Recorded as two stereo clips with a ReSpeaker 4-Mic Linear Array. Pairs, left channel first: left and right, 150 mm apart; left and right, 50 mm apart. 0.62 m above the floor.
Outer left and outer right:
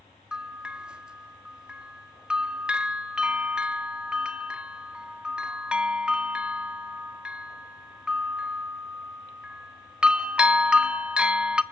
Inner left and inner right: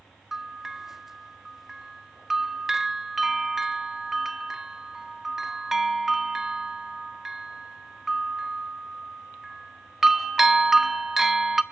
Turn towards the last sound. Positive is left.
turn(degrees=-5)  # may be behind; listen again after turning